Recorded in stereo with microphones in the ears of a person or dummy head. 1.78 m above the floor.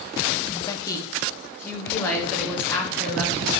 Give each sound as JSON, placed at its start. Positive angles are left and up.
{"t": 0.5, "sound": "a woman speaking", "side_deg": 25, "distance_m": 0.7}